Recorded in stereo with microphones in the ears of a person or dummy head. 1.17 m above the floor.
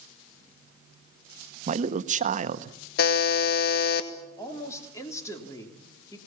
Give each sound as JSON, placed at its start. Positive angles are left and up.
{"t": 1.7, "sound": "a man speaking", "side_deg": -45, "distance_m": 0.9}
{"t": 3.0, "sound": "a buzzer", "side_deg": 50, "distance_m": 1.6}
{"t": 4.4, "sound": "a woman speaking", "side_deg": 25, "distance_m": 3.5}